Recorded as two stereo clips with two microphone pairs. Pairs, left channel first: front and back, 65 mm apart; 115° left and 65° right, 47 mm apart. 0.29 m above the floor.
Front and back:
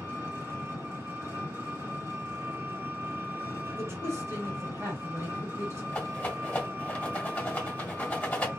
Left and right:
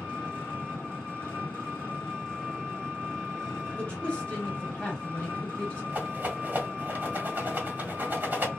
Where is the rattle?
60° right, 1.3 m.